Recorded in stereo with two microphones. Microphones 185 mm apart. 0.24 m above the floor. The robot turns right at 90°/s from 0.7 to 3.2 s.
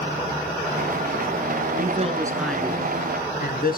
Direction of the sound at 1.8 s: 65° right.